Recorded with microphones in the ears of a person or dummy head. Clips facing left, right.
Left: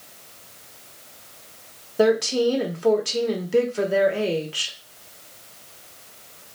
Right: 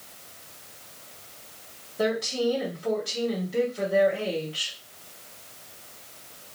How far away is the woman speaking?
About 0.9 m.